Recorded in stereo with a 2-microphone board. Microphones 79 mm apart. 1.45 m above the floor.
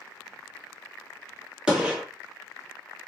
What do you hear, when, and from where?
1.7 s a gunshot: 10° right (ahead or behind), 1.6 m